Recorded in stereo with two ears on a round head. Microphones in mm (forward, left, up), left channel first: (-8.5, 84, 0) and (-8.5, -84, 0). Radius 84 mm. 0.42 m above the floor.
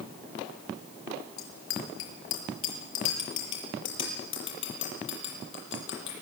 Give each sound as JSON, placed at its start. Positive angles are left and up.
{"t": 1.4, "sound": "a bicycle bell", "side_deg": 80, "distance_m": 5.0}